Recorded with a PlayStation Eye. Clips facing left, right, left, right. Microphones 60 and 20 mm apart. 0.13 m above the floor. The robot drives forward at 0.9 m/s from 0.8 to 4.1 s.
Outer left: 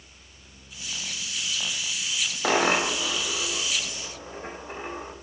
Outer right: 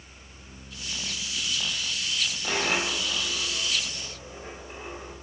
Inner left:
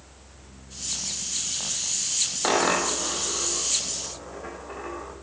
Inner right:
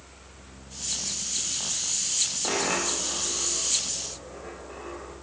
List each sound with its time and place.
2.4 s a dropped coin: 55° left (ahead or behind), 2.5 m; by 5.1 s 35° left (ahead or behind), 3.5 m